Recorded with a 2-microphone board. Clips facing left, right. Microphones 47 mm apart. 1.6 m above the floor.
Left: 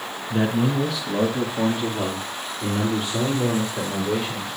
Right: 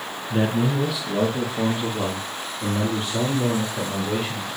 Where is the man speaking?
10° right (ahead or behind), 1.0 m; by 4.5 s 5° left (ahead or behind), 4 m.